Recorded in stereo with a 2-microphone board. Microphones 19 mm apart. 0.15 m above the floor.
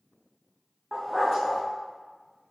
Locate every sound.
0.9 s a dog barking: 5° right (ahead or behind), 3.5 m